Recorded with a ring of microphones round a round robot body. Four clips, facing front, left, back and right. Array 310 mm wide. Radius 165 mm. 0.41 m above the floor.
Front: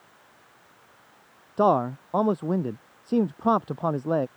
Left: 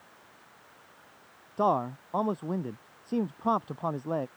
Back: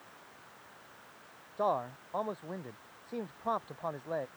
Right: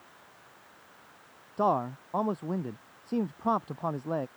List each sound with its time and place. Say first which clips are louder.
1.6 s a man speaking: left 1 dB, front 11 dB; straight ahead